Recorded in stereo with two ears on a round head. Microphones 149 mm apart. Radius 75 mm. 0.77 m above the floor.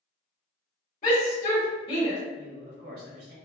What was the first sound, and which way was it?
A shout, 45° left (ahead or behind).